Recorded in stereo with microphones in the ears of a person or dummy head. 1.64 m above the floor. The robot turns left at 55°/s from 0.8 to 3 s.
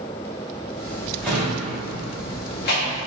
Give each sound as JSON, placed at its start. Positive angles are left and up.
{"t": 1.2, "sound": "a drawer", "side_deg": 5, "distance_m": 0.9}